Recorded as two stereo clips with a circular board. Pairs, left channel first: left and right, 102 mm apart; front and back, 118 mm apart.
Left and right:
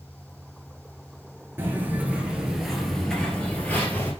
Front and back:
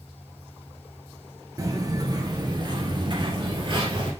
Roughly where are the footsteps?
Behind right.